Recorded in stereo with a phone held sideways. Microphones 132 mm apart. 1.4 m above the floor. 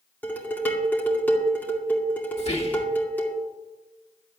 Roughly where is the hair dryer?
I don't hear a hair dryer.